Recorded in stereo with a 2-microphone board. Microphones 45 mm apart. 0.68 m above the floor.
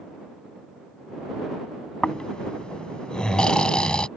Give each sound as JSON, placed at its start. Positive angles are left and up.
{"t": 2.0, "sound": "snoring", "side_deg": 20}